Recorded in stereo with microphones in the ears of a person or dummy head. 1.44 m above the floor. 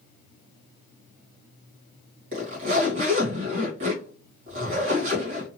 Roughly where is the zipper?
Right.